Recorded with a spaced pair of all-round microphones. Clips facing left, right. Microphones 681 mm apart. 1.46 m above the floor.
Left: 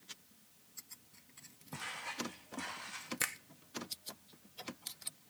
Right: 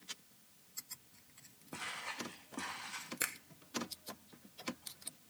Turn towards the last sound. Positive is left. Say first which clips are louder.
# even
turn(degrees=35)  # may be behind; listen again after turning